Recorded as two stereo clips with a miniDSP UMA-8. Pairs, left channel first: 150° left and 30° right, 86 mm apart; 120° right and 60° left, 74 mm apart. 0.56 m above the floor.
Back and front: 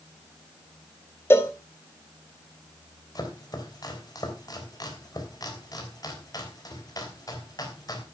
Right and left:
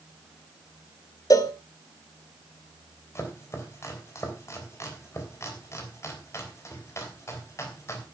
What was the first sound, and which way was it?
A cowbell, 150° right.